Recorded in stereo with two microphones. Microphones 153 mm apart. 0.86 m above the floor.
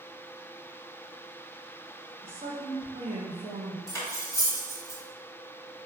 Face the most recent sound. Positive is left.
turn(degrees=20)  # may be behind; listen again after turning